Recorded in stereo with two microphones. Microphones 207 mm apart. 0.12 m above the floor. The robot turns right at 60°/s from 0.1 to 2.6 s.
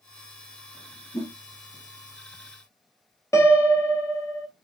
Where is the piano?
15° left (ahead or behind), 0.5 m.